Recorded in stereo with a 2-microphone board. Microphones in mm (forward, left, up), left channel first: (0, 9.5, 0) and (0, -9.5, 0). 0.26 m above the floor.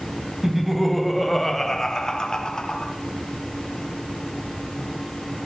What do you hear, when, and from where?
0.4 s laughter: 5° right (ahead or behind), 1.2 m; by 2.9 s 45° left (ahead or behind), 1.4 m